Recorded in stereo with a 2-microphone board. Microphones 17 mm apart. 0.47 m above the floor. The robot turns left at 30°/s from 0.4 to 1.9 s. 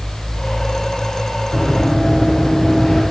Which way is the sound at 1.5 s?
55° left (ahead or behind).